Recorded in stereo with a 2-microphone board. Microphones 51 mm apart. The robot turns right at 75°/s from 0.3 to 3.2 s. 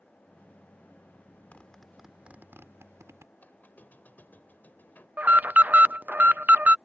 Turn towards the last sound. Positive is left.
turn(degrees=-35)  # may be behind; listen again after turning